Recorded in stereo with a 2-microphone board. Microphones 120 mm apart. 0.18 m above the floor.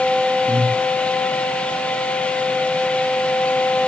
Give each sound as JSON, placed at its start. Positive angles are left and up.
{"t": 0.5, "sound": "breathing", "side_deg": -75, "distance_m": 8.0}